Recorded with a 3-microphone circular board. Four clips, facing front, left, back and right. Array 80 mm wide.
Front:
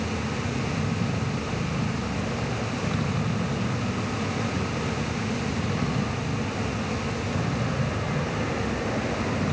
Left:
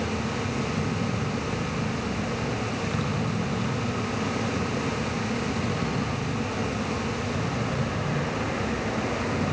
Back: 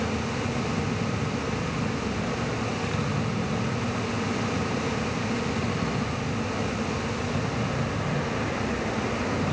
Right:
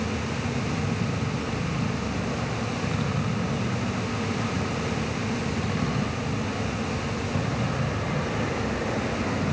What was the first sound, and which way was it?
Only background noise.